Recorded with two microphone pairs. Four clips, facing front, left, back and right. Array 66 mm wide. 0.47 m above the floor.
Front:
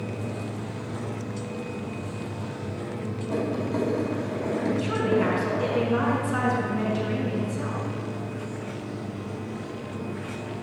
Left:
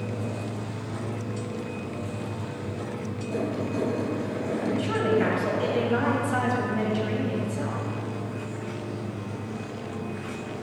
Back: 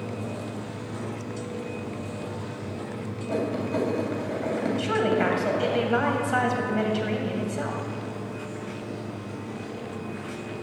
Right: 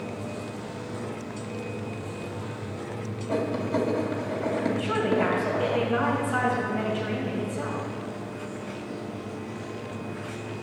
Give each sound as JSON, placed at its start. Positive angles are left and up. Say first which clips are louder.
{"t": 3.3, "sound": "writing", "louder": "right 3 dB, back 1 dB", "azimuth_deg": -130, "distance_m": 2.5}
{"t": 4.8, "sound": "a woman speaking", "louder": "left 2 dB, back 2 dB", "azimuth_deg": 180, "distance_m": 2.5}